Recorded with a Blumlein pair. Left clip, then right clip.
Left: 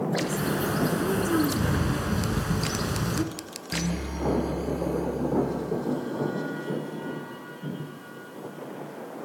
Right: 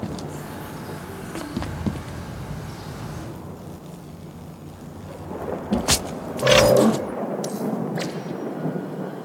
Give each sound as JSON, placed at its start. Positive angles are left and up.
{"t": 0.2, "sound": "a bird", "azimuth_deg": 40, "distance_m": 1.4}